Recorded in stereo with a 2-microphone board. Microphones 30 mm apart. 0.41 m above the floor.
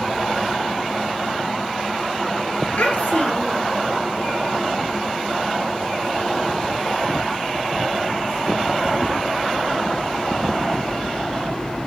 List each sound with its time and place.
2.8 s a child speaking: 65° left (ahead or behind), 6 m